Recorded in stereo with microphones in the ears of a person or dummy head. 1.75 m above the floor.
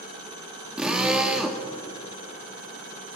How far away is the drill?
About 2.5 m.